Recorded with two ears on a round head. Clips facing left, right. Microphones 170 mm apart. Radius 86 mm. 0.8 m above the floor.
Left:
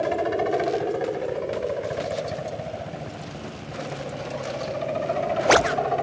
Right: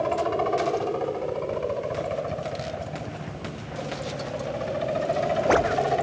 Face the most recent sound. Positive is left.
turn(degrees=-5)  # may be behind; listen again after turning